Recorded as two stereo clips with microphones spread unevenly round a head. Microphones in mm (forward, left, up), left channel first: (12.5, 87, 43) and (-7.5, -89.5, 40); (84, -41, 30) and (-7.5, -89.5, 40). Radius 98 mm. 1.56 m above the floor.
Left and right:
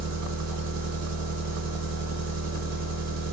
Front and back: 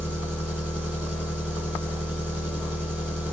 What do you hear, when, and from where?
0.0 s an engine running: 80° right, 2 m